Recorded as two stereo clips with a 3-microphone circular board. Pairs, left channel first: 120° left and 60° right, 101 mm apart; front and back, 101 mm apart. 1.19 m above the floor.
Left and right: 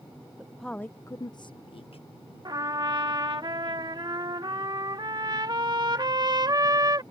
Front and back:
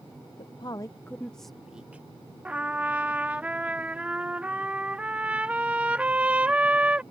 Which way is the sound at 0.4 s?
25° left.